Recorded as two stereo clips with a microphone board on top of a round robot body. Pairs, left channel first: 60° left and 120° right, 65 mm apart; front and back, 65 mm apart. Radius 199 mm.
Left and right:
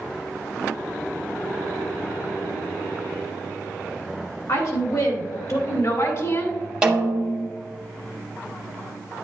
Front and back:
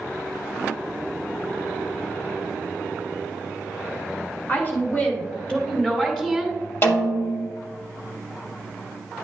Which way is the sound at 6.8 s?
40° right.